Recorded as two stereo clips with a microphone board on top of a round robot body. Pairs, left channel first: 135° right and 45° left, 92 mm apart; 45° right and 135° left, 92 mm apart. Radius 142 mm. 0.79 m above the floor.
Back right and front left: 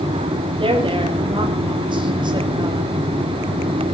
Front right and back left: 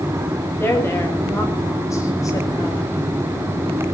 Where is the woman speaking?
20° left, 6 m; by 2.9 s 5° left, 5 m.